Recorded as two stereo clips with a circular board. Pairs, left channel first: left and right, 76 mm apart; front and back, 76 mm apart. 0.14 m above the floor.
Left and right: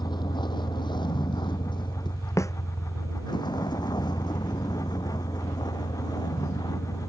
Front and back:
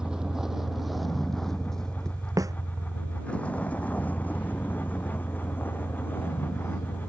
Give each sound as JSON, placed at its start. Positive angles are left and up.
{"t": 0.0, "sound": "a vehicle", "azimuth_deg": 100}
{"t": 2.4, "sound": "a snare drum", "azimuth_deg": 140}